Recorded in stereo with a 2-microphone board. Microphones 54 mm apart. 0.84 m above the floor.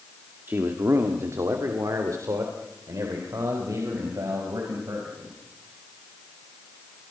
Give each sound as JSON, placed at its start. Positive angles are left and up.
{"t": 0.5, "sound": "a man speaking", "side_deg": -35, "distance_m": 1.9}